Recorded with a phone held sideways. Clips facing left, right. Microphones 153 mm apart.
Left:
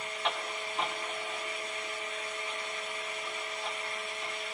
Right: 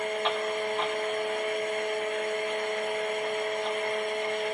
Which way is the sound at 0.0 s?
55° right (ahead or behind).